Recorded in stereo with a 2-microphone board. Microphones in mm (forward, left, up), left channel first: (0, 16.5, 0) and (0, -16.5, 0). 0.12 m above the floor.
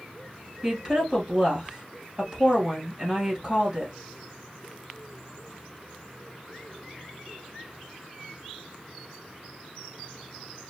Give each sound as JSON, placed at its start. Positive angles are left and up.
{"t": 0.6, "sound": "a woman speaking", "side_deg": -25, "distance_m": 1.8}